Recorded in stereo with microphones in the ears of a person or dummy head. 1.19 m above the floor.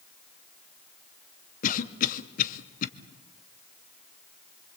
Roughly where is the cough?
Left.